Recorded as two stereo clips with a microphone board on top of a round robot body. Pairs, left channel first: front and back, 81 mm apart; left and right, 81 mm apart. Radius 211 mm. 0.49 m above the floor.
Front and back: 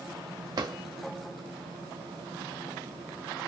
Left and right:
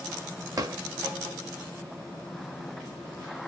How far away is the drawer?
About 0.6 m.